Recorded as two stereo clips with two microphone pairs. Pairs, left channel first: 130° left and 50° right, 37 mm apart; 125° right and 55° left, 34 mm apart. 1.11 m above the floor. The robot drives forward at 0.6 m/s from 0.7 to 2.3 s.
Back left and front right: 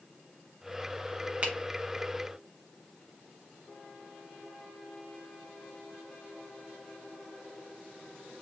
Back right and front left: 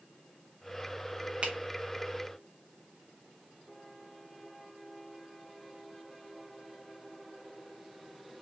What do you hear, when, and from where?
1.4 s a finger snap: 5° left, 1.1 m